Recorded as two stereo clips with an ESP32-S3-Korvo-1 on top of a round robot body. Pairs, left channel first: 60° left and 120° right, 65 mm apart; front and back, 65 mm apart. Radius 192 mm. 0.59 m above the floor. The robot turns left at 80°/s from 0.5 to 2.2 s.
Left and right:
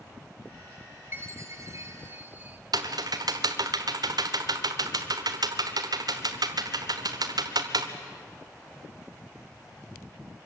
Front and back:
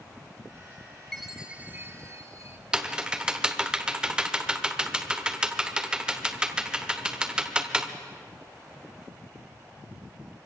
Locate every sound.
1.1 s a chime: 85° right, 1.5 m; by 2.6 s 170° right, 1.5 m
2.7 s typing on a keyboard: 105° right, 1.2 m